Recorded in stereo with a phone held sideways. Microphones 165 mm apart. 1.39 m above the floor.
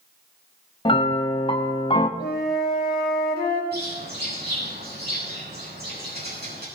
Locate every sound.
0.8 s a piano: 30° left (ahead or behind), 1.3 m
2.2 s a flute: 70° left (ahead or behind), 3 m
3.7 s a bird: 75° right (ahead or behind), 9 m